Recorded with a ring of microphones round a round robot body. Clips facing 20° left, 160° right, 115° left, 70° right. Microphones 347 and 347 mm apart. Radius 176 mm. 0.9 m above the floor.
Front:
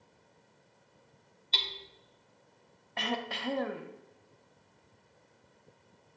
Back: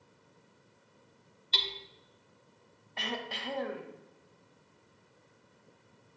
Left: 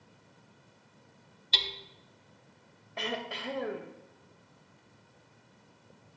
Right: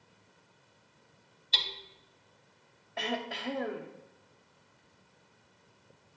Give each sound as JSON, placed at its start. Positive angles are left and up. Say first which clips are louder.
{"t": 1.5, "sound": "hammering", "louder": "back 3 dB, left 4 dB", "azimuth_deg": 135, "distance_m": 0.6}
{"t": 3.0, "sound": "throat clearing", "louder": "front 4 dB, right 1 dB", "azimuth_deg": 25, "distance_m": 0.7}